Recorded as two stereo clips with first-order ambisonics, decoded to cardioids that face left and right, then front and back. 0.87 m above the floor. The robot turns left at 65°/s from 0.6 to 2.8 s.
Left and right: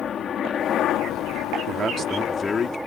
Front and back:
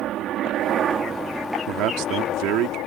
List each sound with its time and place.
0.0 s a helicopter: 140° left; by 2.9 s straight ahead
1.7 s a man speaking: 145° right; by 2.8 s 145° left